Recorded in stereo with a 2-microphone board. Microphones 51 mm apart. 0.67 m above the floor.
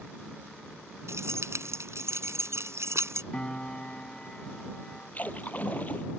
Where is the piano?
20° left (ahead or behind).